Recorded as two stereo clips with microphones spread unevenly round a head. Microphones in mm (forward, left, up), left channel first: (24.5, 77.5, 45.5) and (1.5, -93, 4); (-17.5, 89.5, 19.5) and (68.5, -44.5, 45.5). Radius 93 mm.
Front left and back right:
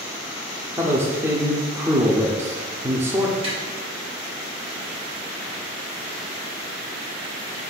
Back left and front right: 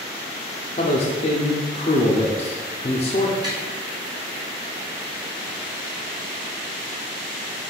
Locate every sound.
0.8 s a man speaking: 175° left, 0.5 m
3.4 s tapping: 40° right, 1.4 m